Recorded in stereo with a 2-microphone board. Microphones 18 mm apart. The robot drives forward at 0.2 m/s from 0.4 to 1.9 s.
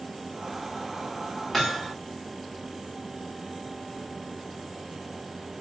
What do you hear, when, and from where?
1.5 s hammering: 10° left (ahead or behind), 3 m